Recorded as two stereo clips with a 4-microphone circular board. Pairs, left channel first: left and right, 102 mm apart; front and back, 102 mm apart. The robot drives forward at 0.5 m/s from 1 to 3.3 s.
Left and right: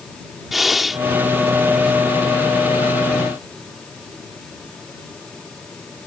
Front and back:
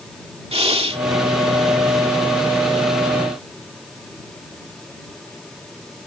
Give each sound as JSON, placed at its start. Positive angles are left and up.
{"t": 0.5, "sound": "breathing", "azimuth_deg": 180}